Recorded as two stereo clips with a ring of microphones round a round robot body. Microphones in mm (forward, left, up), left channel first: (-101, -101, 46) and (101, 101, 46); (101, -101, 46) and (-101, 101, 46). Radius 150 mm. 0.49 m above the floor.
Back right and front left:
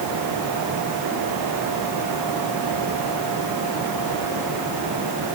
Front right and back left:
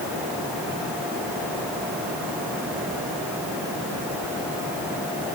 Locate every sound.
Only background noise.